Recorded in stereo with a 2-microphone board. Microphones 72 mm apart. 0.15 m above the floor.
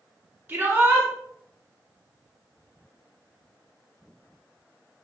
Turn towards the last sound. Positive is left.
turn(degrees=-25)  # may be behind; listen again after turning